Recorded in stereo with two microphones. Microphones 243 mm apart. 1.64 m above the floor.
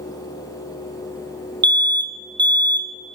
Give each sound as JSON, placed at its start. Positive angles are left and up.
{"t": 1.6, "sound": "an alarm", "side_deg": -45, "distance_m": 0.6}